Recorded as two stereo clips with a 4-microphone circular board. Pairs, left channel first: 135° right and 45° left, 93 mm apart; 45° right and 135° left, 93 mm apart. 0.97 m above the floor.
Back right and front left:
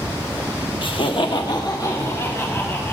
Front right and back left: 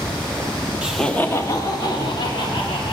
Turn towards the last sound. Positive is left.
turn(degrees=-75)